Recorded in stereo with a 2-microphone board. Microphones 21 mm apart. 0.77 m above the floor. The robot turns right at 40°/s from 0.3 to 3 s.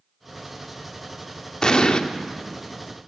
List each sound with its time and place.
1.6 s an explosion: 35° left (ahead or behind), 0.6 m; by 2.0 s 55° left (ahead or behind), 0.6 m